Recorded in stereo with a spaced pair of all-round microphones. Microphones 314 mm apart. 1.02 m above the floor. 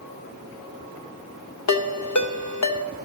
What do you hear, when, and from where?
1.7 s a ringtone: 60° left (ahead or behind), 0.6 m